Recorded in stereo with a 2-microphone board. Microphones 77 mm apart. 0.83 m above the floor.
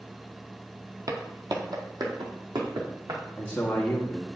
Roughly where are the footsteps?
Right.